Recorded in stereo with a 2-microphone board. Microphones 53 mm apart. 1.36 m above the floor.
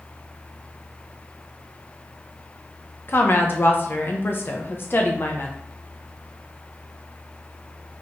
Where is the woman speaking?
45° left (ahead or behind), 0.9 m.